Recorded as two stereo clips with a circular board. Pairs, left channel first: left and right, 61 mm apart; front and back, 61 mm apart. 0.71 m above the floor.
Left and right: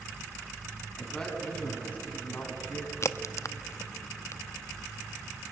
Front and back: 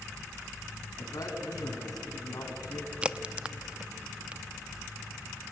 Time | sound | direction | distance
1.0 | a man speaking | 10° left | 5.5 m
3.0 | a crack | 110° left | 0.6 m